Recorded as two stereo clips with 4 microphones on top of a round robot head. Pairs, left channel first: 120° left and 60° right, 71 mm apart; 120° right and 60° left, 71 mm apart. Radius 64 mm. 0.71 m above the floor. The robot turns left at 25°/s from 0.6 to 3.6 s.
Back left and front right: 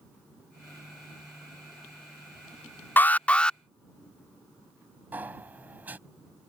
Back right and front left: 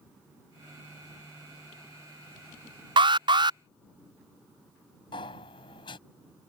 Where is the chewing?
I don't hear chewing.